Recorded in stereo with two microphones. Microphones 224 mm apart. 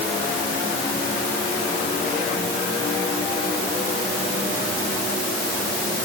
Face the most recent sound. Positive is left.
No sound to turn to.